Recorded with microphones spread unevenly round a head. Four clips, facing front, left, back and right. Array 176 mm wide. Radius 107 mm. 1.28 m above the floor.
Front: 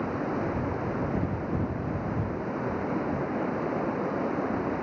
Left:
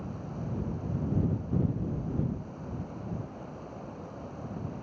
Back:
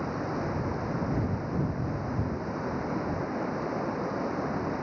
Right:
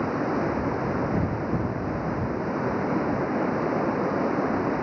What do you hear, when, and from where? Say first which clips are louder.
0.0 s running water: right 14 dB, front 2 dB; 75° right